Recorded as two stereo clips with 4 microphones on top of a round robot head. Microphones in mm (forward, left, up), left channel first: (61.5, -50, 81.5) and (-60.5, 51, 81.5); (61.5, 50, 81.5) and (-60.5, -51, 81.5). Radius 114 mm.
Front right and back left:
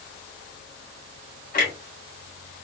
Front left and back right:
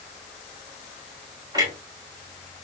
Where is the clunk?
75° right, 2.5 m.